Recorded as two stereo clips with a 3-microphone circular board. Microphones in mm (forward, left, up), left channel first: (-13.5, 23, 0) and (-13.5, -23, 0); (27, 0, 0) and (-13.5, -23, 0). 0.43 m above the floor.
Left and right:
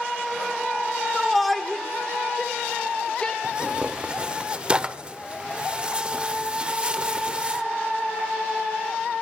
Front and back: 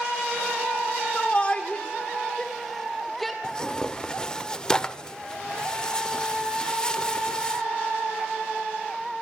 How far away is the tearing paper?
About 0.6 m.